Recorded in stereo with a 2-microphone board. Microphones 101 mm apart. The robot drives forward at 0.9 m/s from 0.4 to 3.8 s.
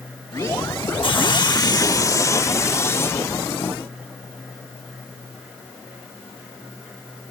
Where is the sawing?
55° left (ahead or behind); by 3.3 s 25° left (ahead or behind).